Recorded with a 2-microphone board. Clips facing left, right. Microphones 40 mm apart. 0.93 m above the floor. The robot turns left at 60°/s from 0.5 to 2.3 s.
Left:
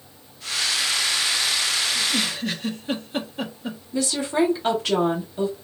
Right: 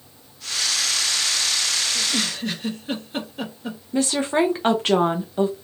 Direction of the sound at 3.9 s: 40° right (ahead or behind).